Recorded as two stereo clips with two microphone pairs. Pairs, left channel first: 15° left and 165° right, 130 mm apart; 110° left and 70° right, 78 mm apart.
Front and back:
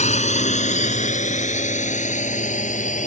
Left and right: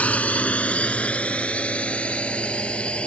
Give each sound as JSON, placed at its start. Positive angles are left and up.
{"t": 0.0, "sound": "a drone", "azimuth_deg": 35}